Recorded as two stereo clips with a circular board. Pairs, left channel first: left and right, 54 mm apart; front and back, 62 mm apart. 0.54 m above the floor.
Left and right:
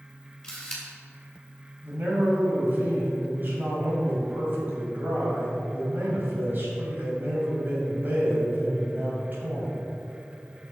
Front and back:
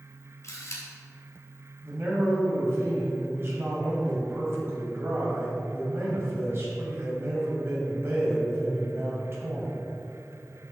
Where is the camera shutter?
10° left, 2 m.